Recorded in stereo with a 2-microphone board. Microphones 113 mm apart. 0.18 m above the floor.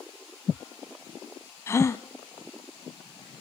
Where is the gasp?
25° left (ahead or behind), 0.7 m.